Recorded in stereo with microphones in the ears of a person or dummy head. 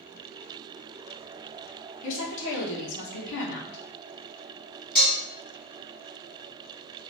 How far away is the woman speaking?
About 1.2 m.